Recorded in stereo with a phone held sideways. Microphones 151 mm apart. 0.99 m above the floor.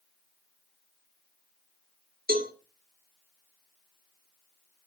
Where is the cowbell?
75° right (ahead or behind), 1.6 m.